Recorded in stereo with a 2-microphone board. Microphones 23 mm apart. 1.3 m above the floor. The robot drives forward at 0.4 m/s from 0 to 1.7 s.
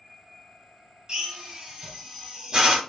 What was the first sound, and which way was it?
A drill, 30° right (ahead or behind).